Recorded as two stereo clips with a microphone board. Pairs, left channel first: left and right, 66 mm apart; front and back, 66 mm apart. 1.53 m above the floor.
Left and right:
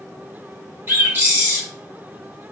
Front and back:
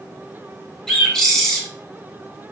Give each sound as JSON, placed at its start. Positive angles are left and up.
{"t": 0.9, "sound": "a bird", "azimuth_deg": -75, "distance_m": 1.2}